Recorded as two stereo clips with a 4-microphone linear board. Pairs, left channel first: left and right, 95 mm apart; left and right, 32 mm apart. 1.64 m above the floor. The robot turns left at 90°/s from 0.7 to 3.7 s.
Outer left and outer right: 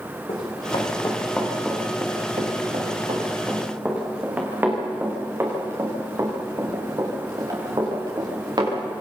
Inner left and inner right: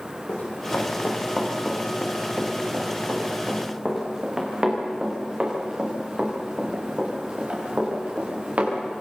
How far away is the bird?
No bird in this recording.